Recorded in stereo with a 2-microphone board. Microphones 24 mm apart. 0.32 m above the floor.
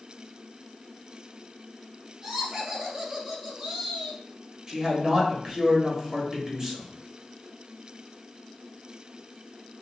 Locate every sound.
2.2 s laughter: 15° right (ahead or behind), 1.4 m
4.7 s a man speaking: 25° right (ahead or behind), 1.1 m